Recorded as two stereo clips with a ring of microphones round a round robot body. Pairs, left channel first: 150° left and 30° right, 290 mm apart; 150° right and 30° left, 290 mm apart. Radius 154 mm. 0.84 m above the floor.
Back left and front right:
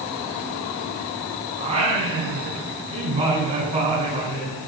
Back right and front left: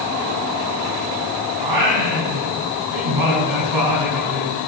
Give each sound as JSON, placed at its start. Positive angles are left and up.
{"t": 1.6, "sound": "singing", "azimuth_deg": 40, "distance_m": 6.0}